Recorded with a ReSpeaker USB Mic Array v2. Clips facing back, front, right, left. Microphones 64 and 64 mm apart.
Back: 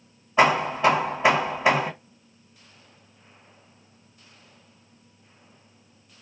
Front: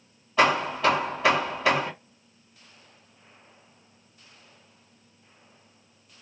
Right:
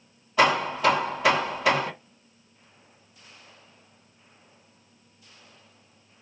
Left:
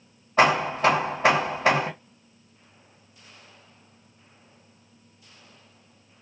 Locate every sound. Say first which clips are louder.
0.4 s hammering: back 2 dB, left 2 dB; 120° left, 1.7 m